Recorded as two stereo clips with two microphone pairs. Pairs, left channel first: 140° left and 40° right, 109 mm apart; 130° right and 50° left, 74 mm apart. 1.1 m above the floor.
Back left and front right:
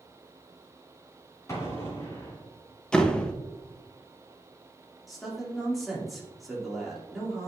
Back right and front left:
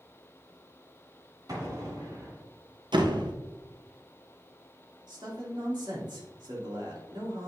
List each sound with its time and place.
1.5 s an explosion: 75° left, 2.5 m
2.9 s a door slam: 55° left, 0.7 m
5.1 s a man speaking: 45° left, 2.5 m